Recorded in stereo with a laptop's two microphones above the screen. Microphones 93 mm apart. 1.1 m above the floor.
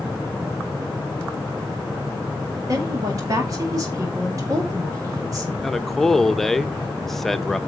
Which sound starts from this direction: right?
A woman speaking, at 2.7 s.